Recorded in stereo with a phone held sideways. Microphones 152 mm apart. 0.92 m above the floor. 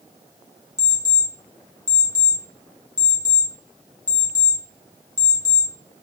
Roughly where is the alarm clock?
Left.